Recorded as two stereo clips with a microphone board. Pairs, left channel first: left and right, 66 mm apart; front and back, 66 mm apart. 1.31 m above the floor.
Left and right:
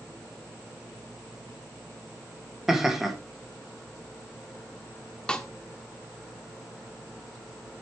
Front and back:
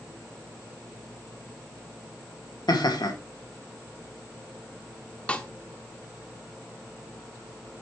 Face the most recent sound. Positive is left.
turn(degrees=35)